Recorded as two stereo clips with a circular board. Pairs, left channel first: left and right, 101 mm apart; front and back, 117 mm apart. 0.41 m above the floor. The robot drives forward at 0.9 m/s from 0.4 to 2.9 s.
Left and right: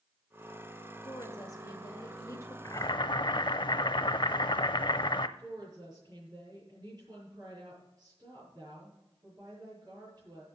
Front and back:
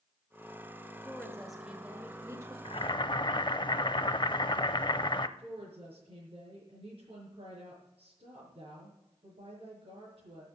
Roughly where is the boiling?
Ahead left.